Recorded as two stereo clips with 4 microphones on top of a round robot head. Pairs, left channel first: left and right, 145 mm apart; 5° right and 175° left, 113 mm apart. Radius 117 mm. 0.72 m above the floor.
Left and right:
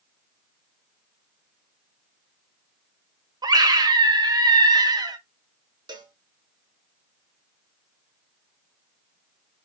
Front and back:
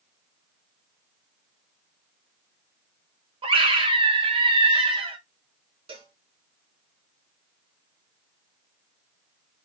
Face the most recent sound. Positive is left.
turn(degrees=-150)